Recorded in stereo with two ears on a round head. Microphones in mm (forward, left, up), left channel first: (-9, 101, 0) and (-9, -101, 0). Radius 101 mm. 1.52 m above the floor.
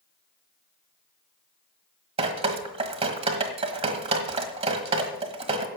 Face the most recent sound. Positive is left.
turn(degrees=-25)  # may be behind; listen again after turning